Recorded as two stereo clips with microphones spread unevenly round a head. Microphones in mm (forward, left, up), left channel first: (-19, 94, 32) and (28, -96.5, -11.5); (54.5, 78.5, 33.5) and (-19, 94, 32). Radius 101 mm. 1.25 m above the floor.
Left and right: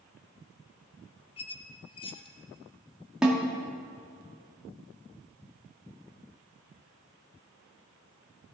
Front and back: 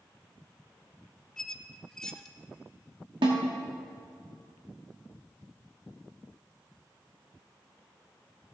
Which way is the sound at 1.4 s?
65° left.